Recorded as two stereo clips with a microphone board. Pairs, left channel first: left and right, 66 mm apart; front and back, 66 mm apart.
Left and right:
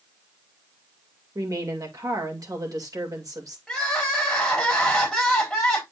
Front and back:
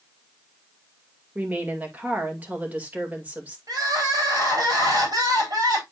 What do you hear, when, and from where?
1.4 s a woman speaking: 115° right, 2 m
3.7 s crying: 175° left, 3.5 m